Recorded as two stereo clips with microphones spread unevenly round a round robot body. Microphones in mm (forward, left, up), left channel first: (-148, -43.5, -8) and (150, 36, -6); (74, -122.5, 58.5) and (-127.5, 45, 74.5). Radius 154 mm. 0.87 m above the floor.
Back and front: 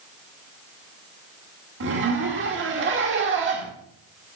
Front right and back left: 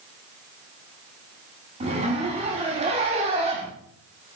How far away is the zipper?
About 1.7 m.